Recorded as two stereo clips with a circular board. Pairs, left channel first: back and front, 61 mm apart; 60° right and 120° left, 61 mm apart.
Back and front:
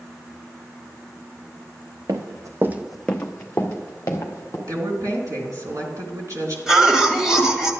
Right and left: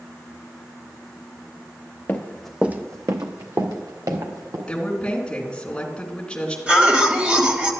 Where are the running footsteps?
Straight ahead, 1.2 m; by 4.6 s 135° left, 3 m.